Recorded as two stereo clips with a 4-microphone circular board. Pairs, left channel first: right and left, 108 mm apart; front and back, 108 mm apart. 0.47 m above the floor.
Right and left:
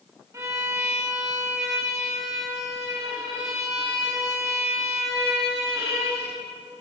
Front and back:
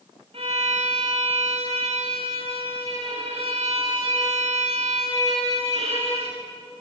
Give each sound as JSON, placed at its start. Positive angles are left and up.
{"t": 0.3, "sound": "a violin", "azimuth_deg": 155, "distance_m": 8.5}